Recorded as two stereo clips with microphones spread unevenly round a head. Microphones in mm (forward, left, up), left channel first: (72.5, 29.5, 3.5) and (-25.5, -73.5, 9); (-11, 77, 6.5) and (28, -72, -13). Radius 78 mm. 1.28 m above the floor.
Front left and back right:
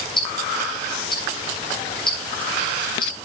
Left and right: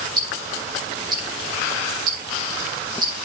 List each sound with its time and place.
0.2 s ticking: 10° right, 7.5 m